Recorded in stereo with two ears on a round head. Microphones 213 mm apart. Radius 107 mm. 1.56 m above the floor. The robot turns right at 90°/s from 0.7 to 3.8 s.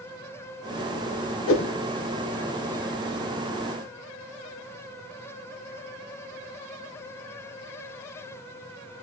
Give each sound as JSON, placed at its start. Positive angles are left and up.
{"t": 1.5, "sound": "a whoosh", "side_deg": 55, "distance_m": 0.8}